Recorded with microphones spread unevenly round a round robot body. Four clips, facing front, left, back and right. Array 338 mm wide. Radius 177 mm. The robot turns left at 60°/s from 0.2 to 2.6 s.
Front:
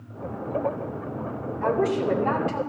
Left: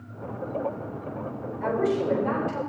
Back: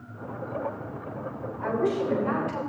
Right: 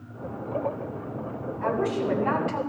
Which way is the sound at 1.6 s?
15° left.